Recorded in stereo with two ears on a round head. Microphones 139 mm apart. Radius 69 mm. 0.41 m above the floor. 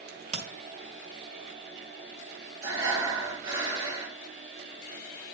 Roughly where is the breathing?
Right.